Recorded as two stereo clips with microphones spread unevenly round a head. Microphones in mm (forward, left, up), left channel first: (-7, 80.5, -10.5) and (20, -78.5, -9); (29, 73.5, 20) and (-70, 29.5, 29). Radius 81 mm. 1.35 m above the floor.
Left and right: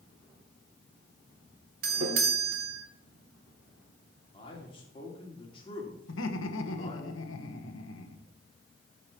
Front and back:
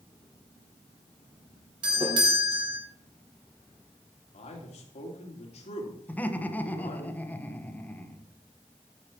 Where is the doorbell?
105° right, 1.9 m.